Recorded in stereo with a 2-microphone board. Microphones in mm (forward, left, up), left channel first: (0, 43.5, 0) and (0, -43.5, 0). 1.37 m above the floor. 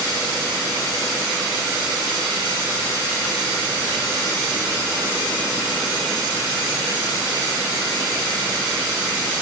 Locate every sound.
Only background noise.